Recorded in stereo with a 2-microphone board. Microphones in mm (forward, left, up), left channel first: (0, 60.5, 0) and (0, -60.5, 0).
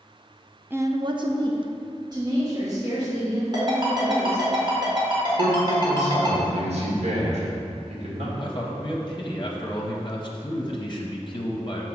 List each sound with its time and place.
0.7 s a woman speaking: 15° right (ahead or behind), 0.5 m; by 4.5 s 30° right (ahead or behind), 4.5 m
3.5 s a ringtone: 40° right (ahead or behind), 1.8 m
5.4 s a man speaking: 70° right (ahead or behind), 1.9 m
8.4 s a man speaking: 40° left (ahead or behind), 0.7 m